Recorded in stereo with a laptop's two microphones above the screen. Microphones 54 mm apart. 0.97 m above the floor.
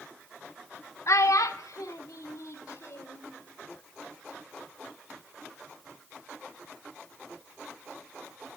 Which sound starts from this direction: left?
A child speaking, at 1.1 s.